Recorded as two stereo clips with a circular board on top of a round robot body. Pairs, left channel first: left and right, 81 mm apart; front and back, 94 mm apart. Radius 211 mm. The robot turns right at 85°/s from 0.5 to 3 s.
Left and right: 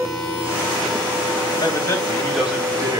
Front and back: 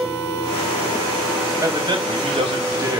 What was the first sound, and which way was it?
A man speaking, 120° left.